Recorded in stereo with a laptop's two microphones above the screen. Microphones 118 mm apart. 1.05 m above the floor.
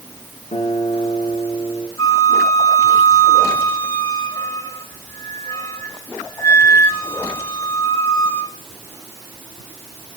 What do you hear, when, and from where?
0.5 s a guitar: 75° left (ahead or behind), 3.5 m
2.0 s a flute: 25° left (ahead or behind), 2.0 m